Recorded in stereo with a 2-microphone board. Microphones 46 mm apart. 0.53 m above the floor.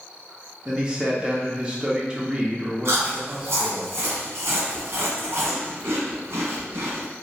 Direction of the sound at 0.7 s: 20° right (ahead or behind).